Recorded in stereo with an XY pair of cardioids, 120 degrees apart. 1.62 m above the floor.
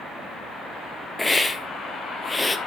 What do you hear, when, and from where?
1.2 s a hiss: 20° left, 1.0 m